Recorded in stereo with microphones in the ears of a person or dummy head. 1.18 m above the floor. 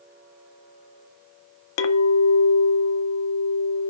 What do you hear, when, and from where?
1.8 s a clink: 70° left (ahead or behind), 0.5 m